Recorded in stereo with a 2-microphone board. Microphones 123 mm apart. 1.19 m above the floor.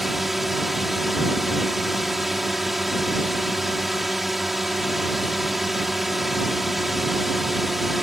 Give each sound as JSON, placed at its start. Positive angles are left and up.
{"t": 0.0, "sound": "a drone", "side_deg": 0}